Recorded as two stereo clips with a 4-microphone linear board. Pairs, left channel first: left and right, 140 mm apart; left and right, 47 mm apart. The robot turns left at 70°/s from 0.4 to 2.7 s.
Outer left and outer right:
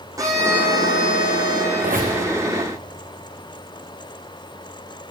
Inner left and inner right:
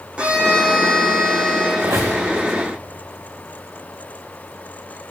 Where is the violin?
25° right, 2.5 m; by 1.7 s 115° right, 2.5 m.